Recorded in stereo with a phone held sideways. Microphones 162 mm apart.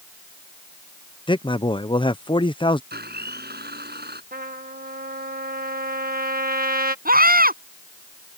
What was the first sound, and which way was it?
A man speaking, 30° left (ahead or behind).